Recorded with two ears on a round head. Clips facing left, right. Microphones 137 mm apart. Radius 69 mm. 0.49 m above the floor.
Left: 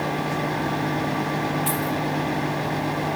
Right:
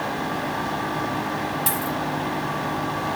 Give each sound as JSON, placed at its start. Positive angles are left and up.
{"t": 1.7, "sound": "a dropped coin", "side_deg": -50, "distance_m": 3.5}